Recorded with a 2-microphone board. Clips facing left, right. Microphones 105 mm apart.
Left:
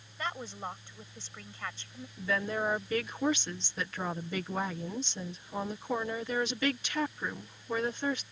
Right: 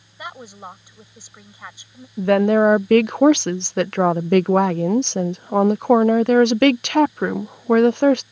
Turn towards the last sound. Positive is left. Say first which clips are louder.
# right 18 dB
turn(degrees=-75)  # may be behind; listen again after turning